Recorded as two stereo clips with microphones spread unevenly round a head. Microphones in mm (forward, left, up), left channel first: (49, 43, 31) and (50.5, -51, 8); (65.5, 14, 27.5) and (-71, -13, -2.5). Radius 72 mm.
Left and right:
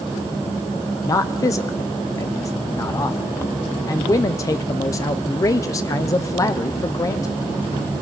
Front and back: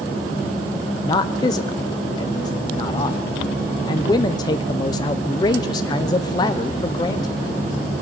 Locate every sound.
1.0 s a man speaking: 60° left, 0.7 m